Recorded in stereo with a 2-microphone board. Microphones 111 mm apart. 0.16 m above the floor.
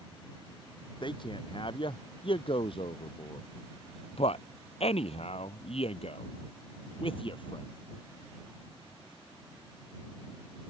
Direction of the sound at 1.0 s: 50° left (ahead or behind).